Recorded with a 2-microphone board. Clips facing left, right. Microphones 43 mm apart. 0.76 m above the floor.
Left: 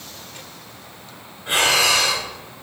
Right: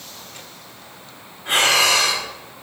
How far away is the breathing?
About 1.3 m.